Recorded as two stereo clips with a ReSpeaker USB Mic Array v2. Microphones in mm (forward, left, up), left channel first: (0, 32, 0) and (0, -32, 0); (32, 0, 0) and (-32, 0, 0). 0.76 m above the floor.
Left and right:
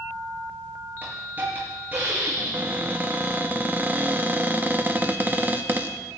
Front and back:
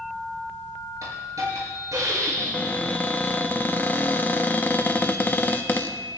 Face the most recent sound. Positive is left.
turn(degrees=-45)